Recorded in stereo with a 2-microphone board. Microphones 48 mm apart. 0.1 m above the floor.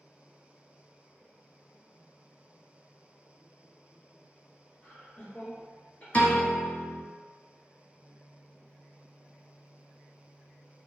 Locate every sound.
4.8 s laughter: 15° left (ahead or behind), 1.4 m; by 6.0 s 30° left (ahead or behind), 1.4 m
6.1 s a piano: 30° left (ahead or behind), 0.9 m